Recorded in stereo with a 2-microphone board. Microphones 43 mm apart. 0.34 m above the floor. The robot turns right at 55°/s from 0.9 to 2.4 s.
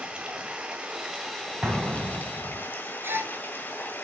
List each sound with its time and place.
0.0 s running water: 30° right, 2.5 m; by 4.0 s 55° left, 2.5 m
1.6 s an explosion: 25° right (ahead or behind), 1.9 m; by 2.6 s 60° right (ahead or behind), 1.9 m
3.0 s a gasp: 60° right (ahead or behind), 1.7 m